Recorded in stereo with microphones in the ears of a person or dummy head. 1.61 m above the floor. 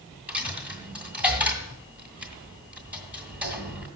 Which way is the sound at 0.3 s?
10° right (ahead or behind).